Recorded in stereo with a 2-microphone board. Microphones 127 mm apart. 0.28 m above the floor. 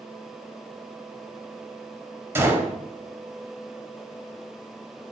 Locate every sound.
2.4 s a gunshot: 20° right (ahead or behind), 0.7 m